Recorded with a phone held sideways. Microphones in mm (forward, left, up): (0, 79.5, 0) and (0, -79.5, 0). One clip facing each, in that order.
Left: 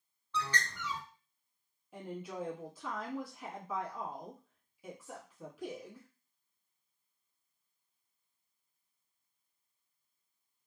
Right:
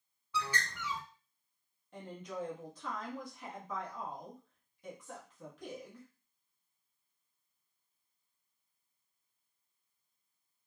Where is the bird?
10° right (ahead or behind), 0.7 m.